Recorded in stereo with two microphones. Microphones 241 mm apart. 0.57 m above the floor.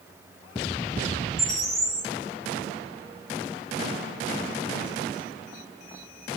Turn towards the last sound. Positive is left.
turn(degrees=30)  # may be behind; listen again after turning